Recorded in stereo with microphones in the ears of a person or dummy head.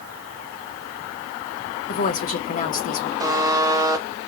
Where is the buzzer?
15° right (ahead or behind), 0.8 m.